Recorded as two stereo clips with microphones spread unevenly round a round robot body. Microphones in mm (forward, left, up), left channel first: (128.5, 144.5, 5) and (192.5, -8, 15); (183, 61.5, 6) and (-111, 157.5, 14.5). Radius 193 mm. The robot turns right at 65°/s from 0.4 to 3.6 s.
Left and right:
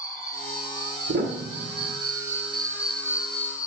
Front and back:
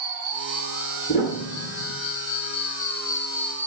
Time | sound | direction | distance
0.0 | an insect | 140° right | 0.8 m
1.1 | a piano | 90° right | 1.6 m